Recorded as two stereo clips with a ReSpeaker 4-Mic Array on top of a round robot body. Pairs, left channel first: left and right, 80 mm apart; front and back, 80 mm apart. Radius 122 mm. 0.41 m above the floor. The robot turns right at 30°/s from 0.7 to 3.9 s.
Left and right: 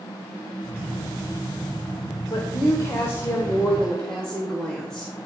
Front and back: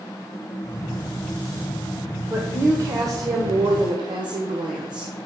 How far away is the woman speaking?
About 1.7 m.